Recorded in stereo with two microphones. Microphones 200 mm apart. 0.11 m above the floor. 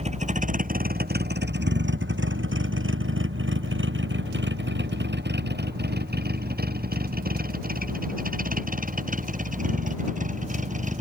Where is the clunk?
I don't hear a clunk.